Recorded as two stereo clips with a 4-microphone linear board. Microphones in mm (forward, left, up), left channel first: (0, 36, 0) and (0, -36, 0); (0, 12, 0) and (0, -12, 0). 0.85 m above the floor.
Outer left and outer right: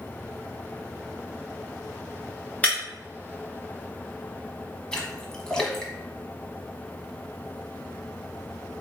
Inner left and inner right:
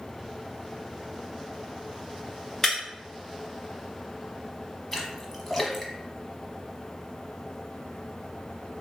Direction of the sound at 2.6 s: 20° left (ahead or behind).